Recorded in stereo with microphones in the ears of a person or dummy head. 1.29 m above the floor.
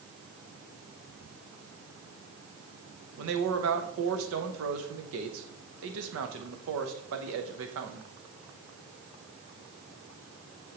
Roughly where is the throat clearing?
No throat clearing in this recording.